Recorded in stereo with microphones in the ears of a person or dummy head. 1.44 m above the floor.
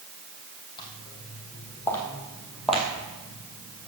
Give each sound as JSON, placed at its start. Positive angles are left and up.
{"t": 0.8, "sound": "footsteps", "side_deg": 25, "distance_m": 3.0}